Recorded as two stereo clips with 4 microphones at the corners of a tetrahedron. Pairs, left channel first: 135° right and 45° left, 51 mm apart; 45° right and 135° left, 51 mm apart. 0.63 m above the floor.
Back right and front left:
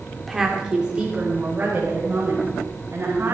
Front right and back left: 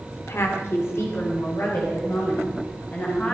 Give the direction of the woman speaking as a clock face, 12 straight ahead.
1 o'clock.